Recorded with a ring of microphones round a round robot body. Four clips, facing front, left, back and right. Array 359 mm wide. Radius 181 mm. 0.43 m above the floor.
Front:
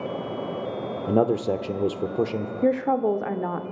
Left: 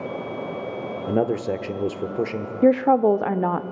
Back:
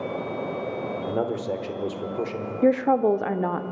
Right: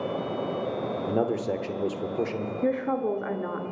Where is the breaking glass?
I don't hear breaking glass.